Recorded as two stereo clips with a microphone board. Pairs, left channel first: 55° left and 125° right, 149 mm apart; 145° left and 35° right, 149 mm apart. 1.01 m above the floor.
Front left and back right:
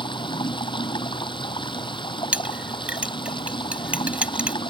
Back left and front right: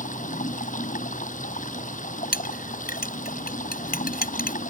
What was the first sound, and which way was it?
Running water, 115° left.